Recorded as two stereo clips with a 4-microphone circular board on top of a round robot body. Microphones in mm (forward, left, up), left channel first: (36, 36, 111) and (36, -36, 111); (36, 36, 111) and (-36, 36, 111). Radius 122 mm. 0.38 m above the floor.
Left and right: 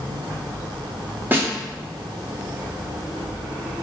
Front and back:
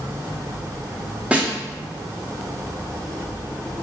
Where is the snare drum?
120° right, 1.0 m.